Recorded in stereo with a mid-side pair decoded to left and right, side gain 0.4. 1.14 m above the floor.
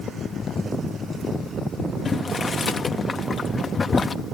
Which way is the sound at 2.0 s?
35° left.